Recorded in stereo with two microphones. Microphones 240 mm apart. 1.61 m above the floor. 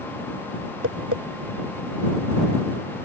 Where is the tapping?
70° right (ahead or behind).